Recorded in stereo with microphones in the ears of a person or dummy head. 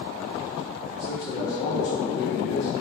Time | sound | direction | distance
1.0 | a man speaking | 70° left (ahead or behind) | 1.8 m